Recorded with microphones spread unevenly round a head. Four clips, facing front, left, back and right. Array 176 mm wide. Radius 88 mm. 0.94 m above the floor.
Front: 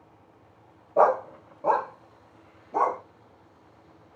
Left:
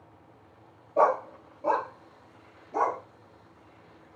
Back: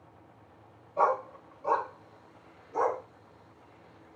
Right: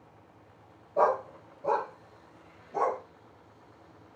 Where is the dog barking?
5° left, 1.1 m; by 3.0 s 15° left, 2.5 m.